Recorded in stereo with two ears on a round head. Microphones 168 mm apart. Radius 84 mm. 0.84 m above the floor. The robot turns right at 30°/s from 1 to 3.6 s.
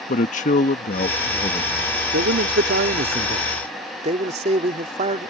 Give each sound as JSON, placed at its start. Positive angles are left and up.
{"t": 0.1, "sound": "a man speaking", "side_deg": 45}
{"t": 2.1, "sound": "a man speaking", "azimuth_deg": -85}